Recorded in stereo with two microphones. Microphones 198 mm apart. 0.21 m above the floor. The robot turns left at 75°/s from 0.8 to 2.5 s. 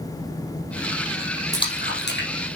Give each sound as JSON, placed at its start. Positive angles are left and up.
{"t": 1.5, "sound": "a splash", "side_deg": 15, "distance_m": 3.0}